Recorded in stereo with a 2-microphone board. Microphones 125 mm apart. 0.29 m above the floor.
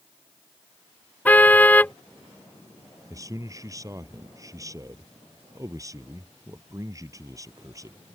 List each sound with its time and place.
1.2 s a car horn: 15° left (ahead or behind)
3.1 s a man speaking: 25° right (ahead or behind)